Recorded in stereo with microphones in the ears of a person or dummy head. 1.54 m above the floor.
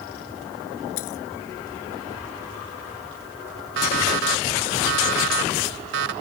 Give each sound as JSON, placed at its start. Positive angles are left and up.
{"t": 1.0, "sound": "a dropped coin", "side_deg": 85}
{"t": 3.8, "sound": "an alarm clock", "side_deg": -70}